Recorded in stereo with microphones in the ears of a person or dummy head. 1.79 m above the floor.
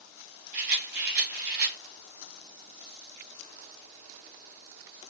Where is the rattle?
50° right (ahead or behind), 1.4 m.